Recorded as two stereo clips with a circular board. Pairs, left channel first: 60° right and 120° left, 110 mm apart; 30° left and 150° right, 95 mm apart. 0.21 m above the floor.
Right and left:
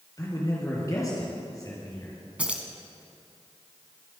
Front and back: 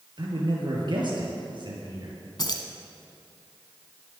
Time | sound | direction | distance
0.2 | a man speaking | 115° right | 3.5 m
2.4 | keys jangling | 45° left | 1.4 m